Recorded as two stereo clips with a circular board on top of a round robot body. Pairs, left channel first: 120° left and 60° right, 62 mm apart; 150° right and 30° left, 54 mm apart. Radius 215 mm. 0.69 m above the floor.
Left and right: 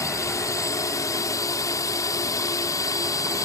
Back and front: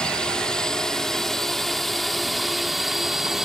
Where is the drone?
135° left; by 3.5 s 110° left.